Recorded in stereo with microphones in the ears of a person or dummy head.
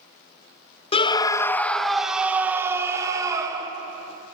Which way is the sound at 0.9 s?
30° left (ahead or behind).